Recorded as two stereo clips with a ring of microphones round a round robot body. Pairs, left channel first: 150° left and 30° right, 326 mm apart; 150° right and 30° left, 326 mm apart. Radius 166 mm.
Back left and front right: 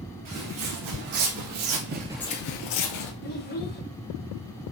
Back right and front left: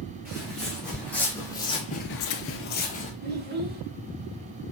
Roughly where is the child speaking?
Left.